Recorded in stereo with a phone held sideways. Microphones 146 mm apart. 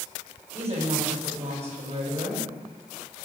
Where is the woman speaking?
50° right (ahead or behind), 5 m.